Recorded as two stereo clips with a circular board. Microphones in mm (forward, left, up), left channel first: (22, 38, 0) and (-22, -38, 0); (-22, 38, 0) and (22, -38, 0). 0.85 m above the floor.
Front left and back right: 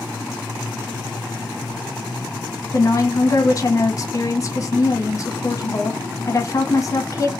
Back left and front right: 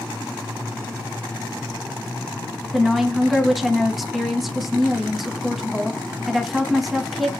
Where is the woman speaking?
25° left, 0.7 m.